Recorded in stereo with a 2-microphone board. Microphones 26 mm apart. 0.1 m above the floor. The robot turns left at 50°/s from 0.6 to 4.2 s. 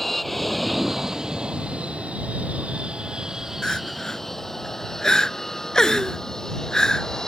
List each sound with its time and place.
0.0 s an aircraft: 5° left (ahead or behind); by 7.3 s 20° left (ahead or behind)
3.6 s crying: 25° left (ahead or behind)